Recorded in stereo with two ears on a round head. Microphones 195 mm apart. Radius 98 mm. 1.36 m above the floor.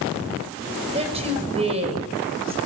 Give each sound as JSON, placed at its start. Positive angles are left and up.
{"t": 0.9, "sound": "a woman speaking", "side_deg": -25, "distance_m": 6.5}